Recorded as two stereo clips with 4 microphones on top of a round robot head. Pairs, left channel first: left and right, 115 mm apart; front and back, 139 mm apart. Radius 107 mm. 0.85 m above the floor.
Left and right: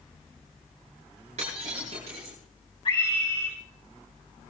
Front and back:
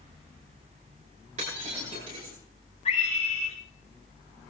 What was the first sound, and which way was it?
Breaking glass, 130° right.